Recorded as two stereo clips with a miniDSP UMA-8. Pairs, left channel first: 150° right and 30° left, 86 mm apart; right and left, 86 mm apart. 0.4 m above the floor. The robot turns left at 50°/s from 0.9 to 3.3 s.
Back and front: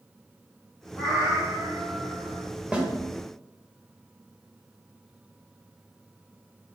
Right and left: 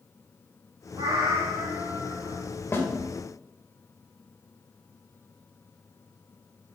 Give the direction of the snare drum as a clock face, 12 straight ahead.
1 o'clock.